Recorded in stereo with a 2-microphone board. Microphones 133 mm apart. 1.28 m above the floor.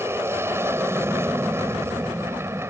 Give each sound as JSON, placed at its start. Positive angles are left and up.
{"t": 0.0, "sound": "an aircraft", "side_deg": -20}